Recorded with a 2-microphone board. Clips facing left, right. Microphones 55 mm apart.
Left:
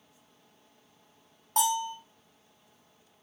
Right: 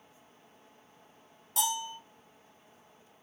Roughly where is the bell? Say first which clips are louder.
Left 6 dB; left.